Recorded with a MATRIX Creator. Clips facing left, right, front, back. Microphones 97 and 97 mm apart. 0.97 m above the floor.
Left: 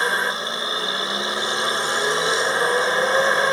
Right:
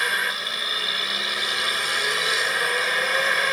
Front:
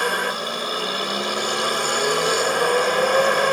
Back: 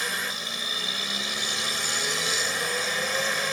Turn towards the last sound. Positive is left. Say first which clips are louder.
# left 4 dB, front 10 dB
turn(degrees=30)